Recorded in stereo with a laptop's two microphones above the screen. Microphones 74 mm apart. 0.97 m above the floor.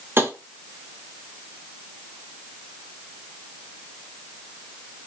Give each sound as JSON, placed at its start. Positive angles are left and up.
{"t": 0.2, "sound": "tapping", "side_deg": -30, "distance_m": 1.2}